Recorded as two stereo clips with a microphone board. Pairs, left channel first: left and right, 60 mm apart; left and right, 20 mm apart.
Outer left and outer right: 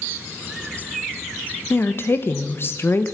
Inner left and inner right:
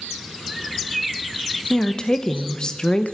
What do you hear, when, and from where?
1.7 s a woman speaking: 40° left (ahead or behind), 1.0 m